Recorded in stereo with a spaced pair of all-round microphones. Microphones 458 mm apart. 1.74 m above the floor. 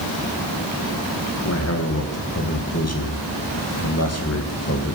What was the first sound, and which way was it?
A man speaking, 35° left (ahead or behind).